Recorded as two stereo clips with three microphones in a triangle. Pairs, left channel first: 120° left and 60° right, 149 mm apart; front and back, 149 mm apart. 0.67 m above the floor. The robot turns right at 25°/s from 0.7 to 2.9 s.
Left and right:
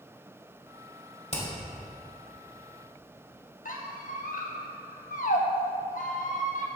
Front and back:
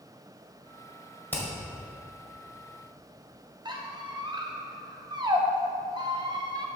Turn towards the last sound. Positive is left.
turn(degrees=125)